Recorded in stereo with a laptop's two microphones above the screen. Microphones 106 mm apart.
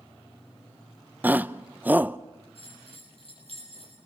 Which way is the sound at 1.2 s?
15° right (ahead or behind).